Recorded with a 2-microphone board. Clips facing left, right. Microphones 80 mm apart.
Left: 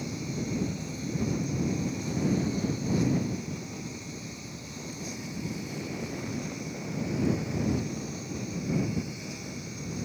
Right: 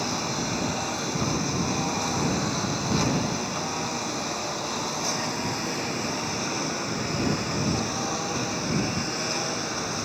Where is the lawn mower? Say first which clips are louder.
Right 5 dB; 80° right.